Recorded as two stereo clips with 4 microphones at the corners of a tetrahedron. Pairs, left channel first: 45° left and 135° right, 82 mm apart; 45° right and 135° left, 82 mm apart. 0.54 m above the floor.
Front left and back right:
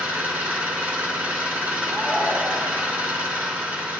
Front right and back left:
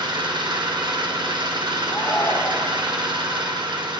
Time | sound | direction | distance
0.0 | an engine running | 155° left | 1.7 m
1.9 | a shout | 65° right | 0.8 m